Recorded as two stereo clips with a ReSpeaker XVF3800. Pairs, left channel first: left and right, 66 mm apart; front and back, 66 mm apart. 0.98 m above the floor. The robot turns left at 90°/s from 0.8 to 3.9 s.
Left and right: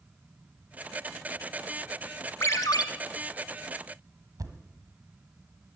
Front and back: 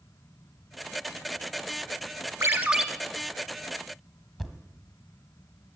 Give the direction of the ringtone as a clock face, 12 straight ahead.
7 o'clock.